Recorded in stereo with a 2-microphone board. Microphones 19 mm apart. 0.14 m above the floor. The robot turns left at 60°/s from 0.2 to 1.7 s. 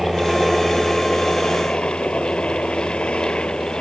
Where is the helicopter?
165° right; by 3.8 s 105° left.